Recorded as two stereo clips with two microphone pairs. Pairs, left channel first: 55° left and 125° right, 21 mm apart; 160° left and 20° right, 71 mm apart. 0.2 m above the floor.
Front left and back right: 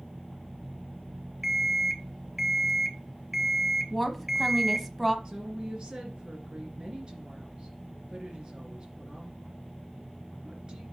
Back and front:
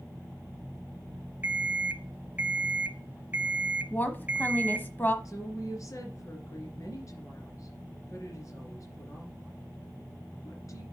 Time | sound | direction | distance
1.4 | an alarm clock | 60° right | 0.6 m
3.9 | a woman speaking | 165° left | 1.0 m
5.2 | a woman speaking | 170° right | 2.5 m